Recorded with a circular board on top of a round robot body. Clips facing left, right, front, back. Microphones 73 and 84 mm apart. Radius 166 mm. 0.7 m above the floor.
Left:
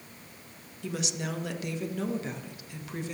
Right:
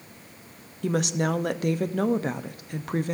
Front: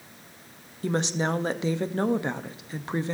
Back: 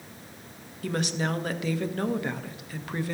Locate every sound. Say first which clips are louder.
0.8 s a woman speaking: right 9 dB, front 2 dB; 60° right, 0.9 m